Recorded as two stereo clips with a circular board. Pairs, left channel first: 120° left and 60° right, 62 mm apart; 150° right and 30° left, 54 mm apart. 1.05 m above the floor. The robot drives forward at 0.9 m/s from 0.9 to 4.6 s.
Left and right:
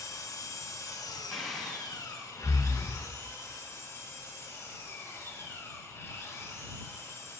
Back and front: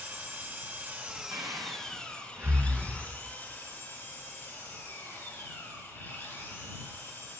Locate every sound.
0.0 s an engine running: 85° left, 0.9 m; by 7.4 s 165° left, 3.5 m
1.3 s breathing: 30° left, 1.4 m; by 3.1 s 120° left, 0.8 m